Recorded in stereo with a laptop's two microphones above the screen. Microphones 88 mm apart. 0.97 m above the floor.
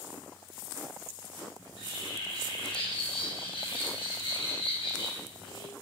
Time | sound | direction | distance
1.6 | a bird | 90° left | 4 m